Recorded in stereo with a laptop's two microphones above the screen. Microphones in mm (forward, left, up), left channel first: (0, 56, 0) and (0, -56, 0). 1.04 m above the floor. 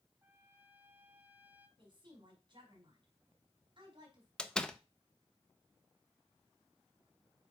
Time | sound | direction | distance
0.2 | a trumpet | 15° right (ahead or behind) | 1.2 m
1.8 | a woman speaking | 45° right (ahead or behind) | 4.5 m
4.4 | a door slam | 5° left (ahead or behind) | 0.8 m